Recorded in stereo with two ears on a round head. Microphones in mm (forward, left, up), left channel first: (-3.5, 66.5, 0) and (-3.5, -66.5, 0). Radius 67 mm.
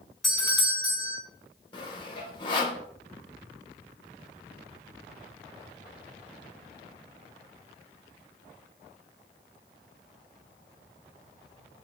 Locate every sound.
0.2 s a doorbell: centre (ahead or behind), 1.2 m
1.7 s sawing: 35° left (ahead or behind), 0.6 m